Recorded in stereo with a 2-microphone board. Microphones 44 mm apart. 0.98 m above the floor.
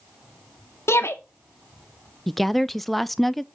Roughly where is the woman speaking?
Centre.